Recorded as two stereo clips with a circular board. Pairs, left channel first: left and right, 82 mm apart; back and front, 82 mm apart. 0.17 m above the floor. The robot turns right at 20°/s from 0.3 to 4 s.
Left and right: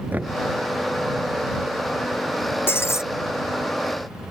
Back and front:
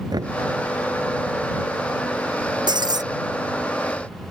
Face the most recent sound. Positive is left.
turn(degrees=55)